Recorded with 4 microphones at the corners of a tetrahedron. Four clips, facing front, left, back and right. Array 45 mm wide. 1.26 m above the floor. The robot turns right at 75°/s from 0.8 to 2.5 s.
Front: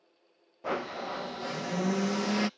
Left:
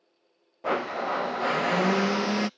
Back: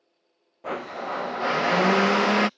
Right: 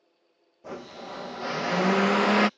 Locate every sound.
0.6 s a blender: 100° left; by 2.5 s 135° right